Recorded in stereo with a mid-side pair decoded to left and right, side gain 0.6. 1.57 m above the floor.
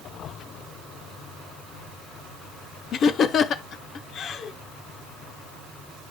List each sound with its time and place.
2.9 s laughter: 50° left, 0.9 m